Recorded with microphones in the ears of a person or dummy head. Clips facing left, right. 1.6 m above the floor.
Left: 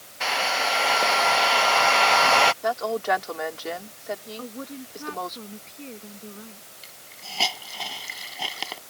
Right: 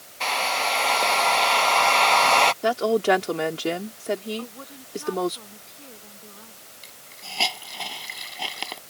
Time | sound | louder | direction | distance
0.2 | a hair dryer | even | 10° left (ahead or behind) | ?
2.6 | a woman speaking | right 5 dB | 40° right (ahead or behind) | ?
4.4 | a woman speaking | left 2 dB | 40° left (ahead or behind) | ?
6.8 | a hiss | right 2 dB | centre (ahead or behind) | ?